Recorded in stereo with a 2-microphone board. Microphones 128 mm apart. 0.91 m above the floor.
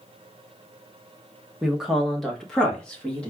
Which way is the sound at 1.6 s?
5° right (ahead or behind).